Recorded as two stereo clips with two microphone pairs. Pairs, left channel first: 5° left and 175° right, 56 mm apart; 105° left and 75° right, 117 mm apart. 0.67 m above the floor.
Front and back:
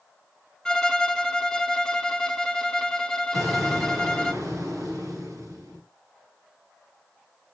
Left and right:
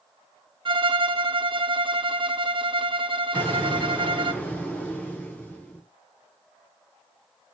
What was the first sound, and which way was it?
A violin, 65° right.